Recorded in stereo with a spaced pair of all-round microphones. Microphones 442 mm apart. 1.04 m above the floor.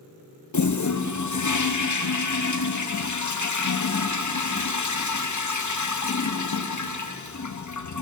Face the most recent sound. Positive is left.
turn(degrees=40)  # may be behind; listen again after turning